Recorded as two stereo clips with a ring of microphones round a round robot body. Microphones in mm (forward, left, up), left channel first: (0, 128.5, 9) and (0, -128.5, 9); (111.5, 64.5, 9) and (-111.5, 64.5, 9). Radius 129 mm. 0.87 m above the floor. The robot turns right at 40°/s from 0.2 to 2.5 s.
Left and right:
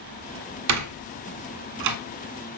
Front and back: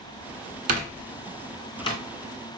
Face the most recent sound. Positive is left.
turn(degrees=-45)